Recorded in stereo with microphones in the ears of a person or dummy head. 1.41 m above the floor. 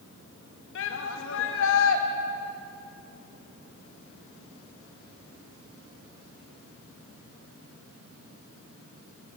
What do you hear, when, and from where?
0.8 s a shout: 75° left (ahead or behind), 2.5 m